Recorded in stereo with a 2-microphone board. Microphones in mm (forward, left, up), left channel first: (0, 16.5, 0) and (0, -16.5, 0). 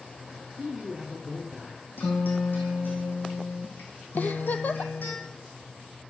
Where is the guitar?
60° left (ahead or behind), 2 m.